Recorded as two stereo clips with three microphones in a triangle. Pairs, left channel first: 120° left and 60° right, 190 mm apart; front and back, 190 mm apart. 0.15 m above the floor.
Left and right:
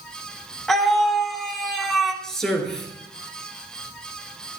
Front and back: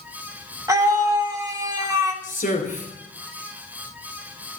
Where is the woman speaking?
35° left, 3 m.